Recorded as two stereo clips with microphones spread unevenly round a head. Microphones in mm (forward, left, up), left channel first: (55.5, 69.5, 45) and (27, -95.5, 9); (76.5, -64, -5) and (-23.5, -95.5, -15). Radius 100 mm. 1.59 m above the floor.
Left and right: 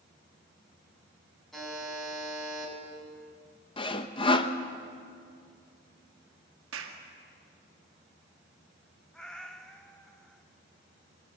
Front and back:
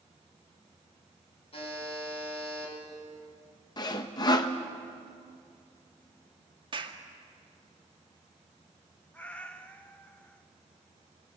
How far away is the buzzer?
About 6.5 m.